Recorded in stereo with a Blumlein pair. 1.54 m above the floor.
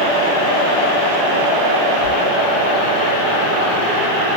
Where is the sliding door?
55° right, 10 m.